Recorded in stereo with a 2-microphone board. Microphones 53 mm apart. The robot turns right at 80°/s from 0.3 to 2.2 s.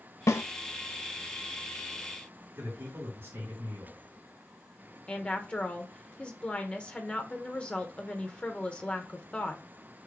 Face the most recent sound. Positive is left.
turn(degrees=20)  # may be behind; listen again after turning